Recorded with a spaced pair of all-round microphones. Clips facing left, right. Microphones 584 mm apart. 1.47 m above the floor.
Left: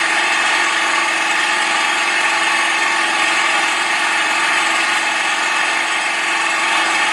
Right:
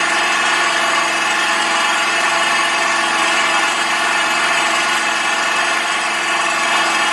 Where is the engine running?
65° right (ahead or behind), 1.7 m.